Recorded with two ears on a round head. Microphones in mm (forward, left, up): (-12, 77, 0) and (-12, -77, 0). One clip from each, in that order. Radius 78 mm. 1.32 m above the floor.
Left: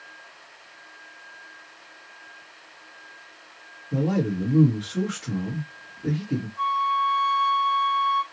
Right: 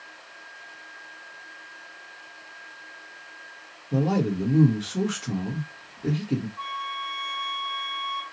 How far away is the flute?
About 0.7 m.